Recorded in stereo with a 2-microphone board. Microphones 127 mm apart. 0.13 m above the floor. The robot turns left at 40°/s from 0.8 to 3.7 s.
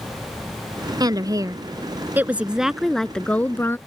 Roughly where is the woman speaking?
Right.